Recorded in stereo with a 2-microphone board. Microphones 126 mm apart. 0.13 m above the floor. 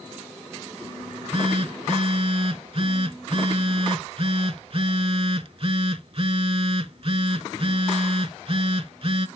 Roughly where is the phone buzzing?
Right.